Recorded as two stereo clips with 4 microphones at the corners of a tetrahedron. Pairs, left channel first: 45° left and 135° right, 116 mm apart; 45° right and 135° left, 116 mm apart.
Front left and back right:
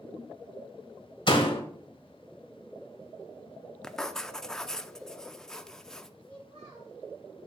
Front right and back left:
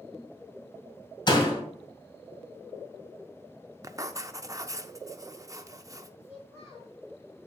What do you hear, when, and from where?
1.3 s a door slam: straight ahead, 1.8 m
3.8 s writing: 125° left, 0.5 m
6.2 s a child speaking: 105° right, 4 m